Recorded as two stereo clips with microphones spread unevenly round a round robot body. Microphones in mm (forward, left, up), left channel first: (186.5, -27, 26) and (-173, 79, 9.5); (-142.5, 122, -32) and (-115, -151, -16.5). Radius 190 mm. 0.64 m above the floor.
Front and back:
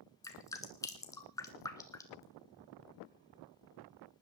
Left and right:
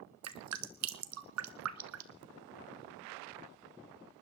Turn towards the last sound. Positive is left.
turn(degrees=-95)